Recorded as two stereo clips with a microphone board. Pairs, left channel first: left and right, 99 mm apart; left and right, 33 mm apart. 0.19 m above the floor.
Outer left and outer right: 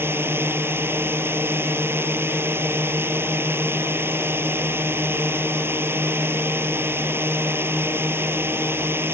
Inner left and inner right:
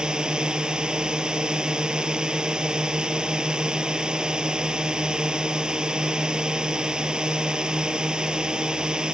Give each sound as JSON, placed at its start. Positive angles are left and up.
{"t": 0.0, "sound": "a drone", "side_deg": -25}